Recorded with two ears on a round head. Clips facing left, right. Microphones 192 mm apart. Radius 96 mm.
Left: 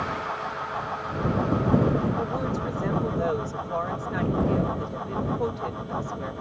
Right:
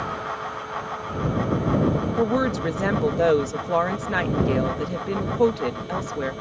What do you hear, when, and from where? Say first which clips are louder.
2.2 s a woman speaking: right 7 dB; 80° right